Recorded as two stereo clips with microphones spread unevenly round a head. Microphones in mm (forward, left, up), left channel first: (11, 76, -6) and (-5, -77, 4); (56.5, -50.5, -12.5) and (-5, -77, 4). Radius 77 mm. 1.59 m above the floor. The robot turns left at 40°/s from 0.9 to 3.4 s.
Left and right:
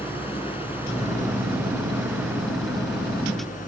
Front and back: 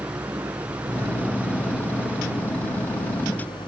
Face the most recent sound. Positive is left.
turn(degrees=40)